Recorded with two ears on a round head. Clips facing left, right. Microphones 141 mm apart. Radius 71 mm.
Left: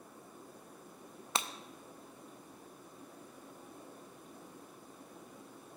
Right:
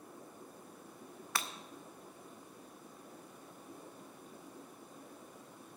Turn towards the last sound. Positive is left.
turn(degrees=20)  # may be behind; listen again after turning